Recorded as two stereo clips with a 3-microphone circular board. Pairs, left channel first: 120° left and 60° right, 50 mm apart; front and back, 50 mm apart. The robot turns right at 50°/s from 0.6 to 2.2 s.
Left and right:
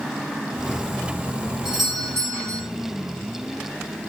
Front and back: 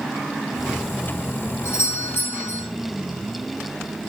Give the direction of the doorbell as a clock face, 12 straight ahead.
11 o'clock.